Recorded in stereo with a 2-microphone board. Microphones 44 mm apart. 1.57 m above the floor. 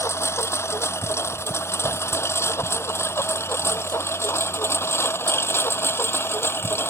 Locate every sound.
0.0 s a lawn mower: 80° left; by 6.9 s 60° left (ahead or behind)